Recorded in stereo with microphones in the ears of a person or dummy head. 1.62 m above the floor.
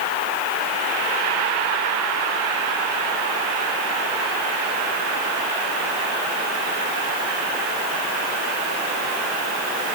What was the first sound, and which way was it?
Only background noise.